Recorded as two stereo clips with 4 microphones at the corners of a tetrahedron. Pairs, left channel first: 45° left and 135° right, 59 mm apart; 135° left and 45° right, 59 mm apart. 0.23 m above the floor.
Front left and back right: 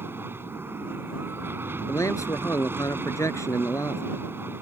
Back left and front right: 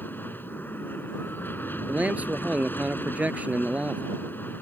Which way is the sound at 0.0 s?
175° right.